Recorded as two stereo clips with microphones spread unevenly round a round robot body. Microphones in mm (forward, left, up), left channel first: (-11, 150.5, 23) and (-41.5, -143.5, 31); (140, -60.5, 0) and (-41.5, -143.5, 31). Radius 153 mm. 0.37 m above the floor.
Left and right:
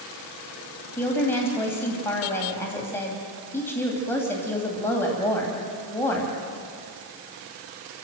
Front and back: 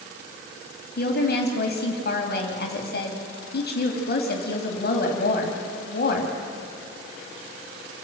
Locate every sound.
1.0 s a woman speaking: straight ahead, 2.5 m